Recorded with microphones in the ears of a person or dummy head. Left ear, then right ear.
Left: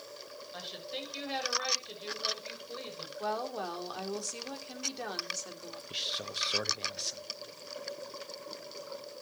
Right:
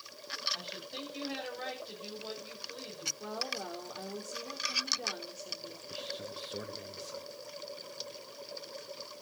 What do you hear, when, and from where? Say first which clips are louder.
0.5 s a woman speaking: even; 25° left (ahead or behind), 6.5 m
3.2 s a woman speaking: left 3 dB; 65° left (ahead or behind), 3.5 m
5.9 s a man speaking: left 7 dB; 45° left (ahead or behind), 1.0 m